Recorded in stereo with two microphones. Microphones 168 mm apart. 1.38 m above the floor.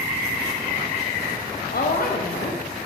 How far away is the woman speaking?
About 0.6 m.